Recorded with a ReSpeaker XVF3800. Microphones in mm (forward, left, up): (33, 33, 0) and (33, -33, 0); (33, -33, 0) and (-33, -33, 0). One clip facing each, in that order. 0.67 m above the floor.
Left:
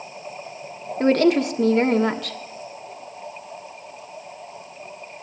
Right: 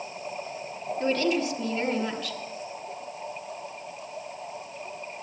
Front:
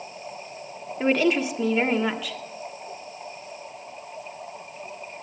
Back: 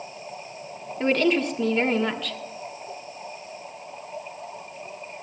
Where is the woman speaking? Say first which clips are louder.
Left 8 dB, even; 80° left, 1.3 m.